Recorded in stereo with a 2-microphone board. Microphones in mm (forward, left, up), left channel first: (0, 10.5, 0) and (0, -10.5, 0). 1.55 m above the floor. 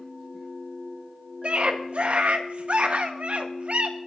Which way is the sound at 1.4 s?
65° right (ahead or behind).